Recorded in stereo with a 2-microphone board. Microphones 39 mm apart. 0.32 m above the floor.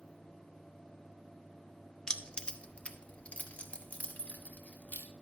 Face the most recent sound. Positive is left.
turn(degrees=40)  # may be behind; listen again after turning